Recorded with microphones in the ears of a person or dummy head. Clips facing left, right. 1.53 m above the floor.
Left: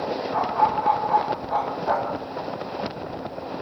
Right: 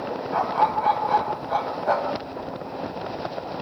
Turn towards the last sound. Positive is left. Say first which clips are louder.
# right 1 dB
turn(degrees=-50)  # may be behind; listen again after turning